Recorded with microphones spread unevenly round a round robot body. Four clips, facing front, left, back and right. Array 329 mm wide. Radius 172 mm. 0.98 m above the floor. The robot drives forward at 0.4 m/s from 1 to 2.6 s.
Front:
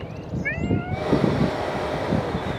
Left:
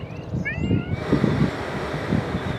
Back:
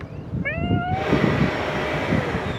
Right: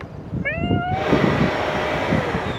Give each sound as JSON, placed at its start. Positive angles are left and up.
{"t": 0.4, "sound": "a cat meowing", "azimuth_deg": -85}